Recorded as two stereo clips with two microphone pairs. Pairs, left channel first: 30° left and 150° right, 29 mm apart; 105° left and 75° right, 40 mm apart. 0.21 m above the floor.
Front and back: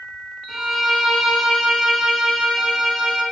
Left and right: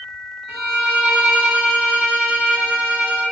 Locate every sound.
0.5 s a violin: 50° right, 0.7 m